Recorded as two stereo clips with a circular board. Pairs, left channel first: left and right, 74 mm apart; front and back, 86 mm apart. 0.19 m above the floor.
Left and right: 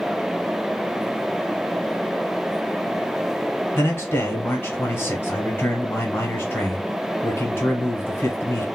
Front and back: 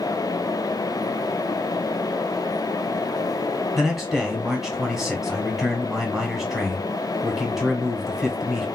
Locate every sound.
3.8 s a man speaking: 95° left, 1.2 m